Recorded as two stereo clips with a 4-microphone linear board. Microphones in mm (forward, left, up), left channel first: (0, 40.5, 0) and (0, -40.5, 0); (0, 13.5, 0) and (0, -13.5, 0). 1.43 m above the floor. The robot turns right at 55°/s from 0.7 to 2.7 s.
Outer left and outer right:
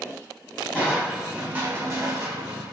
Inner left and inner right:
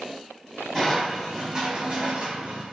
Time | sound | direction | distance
0.7 | crushing | 160° left | 3 m